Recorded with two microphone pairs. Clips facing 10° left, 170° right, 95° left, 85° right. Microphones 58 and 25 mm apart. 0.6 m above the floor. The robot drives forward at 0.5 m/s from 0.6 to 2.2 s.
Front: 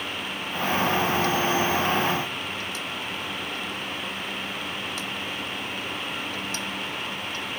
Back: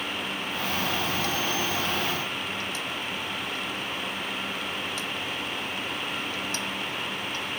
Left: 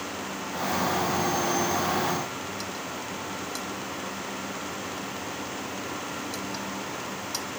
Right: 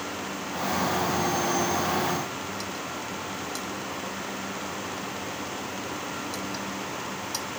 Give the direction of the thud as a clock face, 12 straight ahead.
I don't hear a thud.